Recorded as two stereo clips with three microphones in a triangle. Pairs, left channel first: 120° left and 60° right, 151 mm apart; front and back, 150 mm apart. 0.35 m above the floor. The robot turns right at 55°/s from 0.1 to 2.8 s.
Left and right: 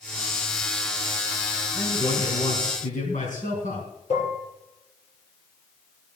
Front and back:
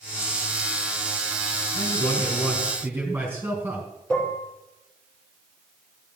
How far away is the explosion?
No explosion in this recording.